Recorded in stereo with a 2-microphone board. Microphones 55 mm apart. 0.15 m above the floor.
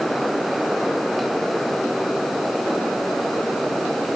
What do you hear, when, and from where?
Only background noise.